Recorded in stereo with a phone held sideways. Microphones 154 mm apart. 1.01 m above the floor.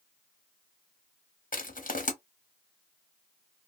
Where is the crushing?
60° left (ahead or behind), 0.7 m.